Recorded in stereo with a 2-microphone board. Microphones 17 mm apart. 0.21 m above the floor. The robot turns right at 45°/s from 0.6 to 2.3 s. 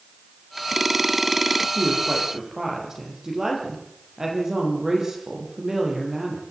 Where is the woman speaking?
10° right (ahead or behind), 6.5 m; by 6.4 s 30° right (ahead or behind), 6.5 m.